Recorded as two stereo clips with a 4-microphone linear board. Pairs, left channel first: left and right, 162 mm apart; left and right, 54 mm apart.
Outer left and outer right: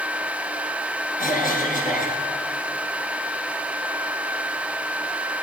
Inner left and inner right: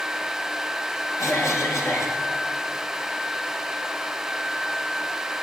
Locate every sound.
1.2 s a cough: 65° left (ahead or behind), 3 m